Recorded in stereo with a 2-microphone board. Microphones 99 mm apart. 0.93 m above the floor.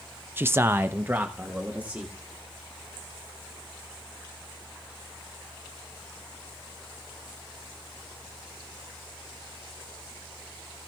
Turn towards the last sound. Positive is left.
turn(degrees=-15)  # may be behind; listen again after turning